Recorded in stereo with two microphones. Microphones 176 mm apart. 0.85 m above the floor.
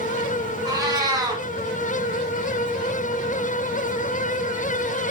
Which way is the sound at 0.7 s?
25° right (ahead or behind).